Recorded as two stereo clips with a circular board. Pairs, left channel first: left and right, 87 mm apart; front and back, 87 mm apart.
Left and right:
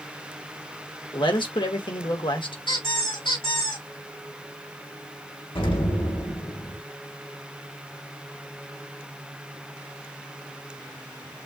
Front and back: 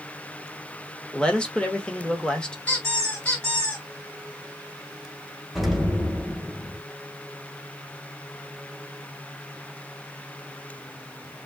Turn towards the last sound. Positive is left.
turn(degrees=95)